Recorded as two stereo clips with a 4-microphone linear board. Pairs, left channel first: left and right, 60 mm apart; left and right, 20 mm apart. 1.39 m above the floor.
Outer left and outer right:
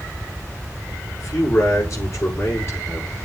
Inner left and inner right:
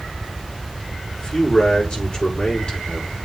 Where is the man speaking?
50° left (ahead or behind), 5 m.